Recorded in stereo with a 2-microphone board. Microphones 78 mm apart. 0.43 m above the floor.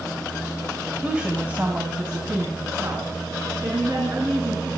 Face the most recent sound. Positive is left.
turn(degrees=-45)  # may be behind; listen again after turning